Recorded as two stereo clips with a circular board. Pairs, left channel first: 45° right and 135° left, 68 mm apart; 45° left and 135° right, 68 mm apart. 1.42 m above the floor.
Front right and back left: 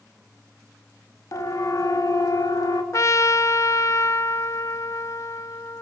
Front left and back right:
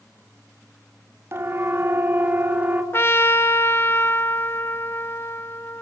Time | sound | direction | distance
1.3 | a siren | 85° right | 3.5 m
2.9 | a trumpet | 5° right | 1.6 m